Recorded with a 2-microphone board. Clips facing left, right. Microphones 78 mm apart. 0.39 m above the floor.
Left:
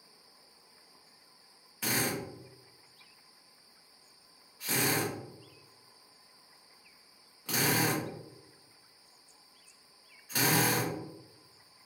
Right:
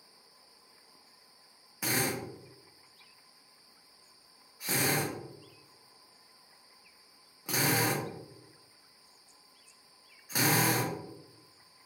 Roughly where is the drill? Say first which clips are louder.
Right 1 dB; centre.